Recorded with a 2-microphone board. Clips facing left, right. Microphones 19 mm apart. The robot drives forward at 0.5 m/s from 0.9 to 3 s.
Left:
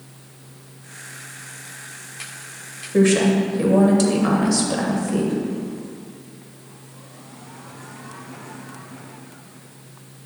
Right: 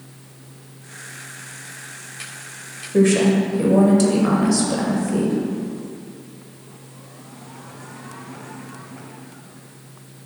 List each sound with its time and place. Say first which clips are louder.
2.9 s a woman speaking: right 1 dB; 10° left (ahead or behind), 0.9 m